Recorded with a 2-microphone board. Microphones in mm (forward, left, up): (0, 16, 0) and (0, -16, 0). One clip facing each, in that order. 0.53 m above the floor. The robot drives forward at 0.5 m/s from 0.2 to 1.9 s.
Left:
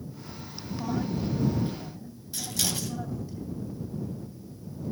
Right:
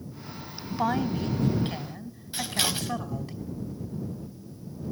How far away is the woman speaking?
About 3.5 m.